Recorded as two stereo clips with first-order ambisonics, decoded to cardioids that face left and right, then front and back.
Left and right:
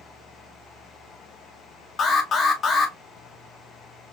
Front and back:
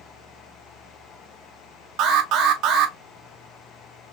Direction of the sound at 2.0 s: 155° left.